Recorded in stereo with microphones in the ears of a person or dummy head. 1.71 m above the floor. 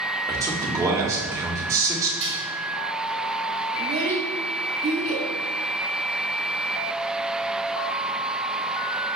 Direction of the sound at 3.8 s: 30° right (ahead or behind).